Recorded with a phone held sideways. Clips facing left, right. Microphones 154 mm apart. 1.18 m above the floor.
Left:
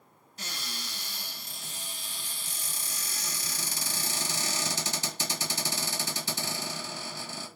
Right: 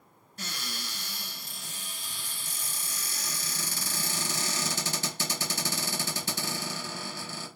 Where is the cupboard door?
55° right (ahead or behind), 1.7 m.